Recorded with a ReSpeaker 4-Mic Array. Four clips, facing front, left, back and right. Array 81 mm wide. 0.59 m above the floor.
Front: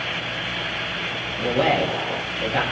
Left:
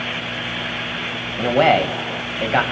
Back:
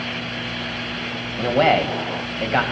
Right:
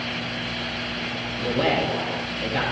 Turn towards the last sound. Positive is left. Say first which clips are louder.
# left 8 dB, back 3 dB
turn(degrees=125)